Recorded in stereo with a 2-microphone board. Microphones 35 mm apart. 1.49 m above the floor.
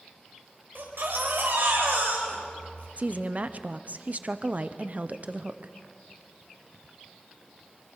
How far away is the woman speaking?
About 0.7 m.